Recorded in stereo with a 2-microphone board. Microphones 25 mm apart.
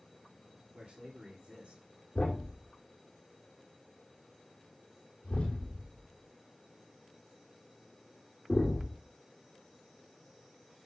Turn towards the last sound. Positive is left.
turn(degrees=55)  # may be behind; listen again after turning